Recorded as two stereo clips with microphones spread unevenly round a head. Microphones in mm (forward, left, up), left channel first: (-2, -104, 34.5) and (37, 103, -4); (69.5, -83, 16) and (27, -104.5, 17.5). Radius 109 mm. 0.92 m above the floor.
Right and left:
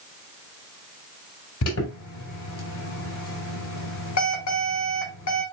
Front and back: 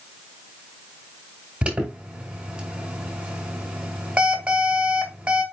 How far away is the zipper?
I don't hear a zipper.